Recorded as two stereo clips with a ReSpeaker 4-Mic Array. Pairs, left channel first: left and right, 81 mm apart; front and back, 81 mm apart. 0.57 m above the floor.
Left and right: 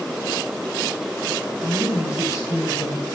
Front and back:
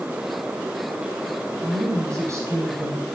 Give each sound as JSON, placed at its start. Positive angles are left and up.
{"t": 1.6, "sound": "a woman speaking", "azimuth_deg": 150, "distance_m": 2.5}